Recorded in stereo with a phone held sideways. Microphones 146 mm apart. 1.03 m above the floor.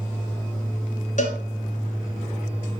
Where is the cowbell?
60° left (ahead or behind), 1.7 m.